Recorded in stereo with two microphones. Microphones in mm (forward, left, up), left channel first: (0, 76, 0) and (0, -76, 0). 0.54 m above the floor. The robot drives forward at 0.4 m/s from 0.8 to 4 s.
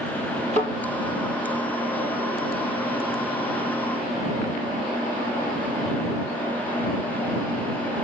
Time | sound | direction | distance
0.5 | a thud | 45° right (ahead or behind) | 7 m